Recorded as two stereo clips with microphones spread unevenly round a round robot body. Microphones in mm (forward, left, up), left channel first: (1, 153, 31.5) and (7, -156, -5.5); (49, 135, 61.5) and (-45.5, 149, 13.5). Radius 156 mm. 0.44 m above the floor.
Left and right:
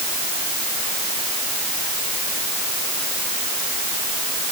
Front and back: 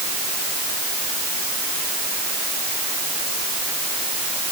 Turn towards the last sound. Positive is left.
No sound to turn to.